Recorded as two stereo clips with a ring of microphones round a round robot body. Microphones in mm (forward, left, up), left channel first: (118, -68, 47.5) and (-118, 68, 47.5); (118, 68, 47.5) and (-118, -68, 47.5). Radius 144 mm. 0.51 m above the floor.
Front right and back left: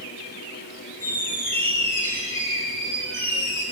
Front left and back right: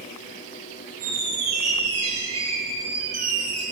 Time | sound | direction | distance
1.0 | a squeak | 110° right | 10 m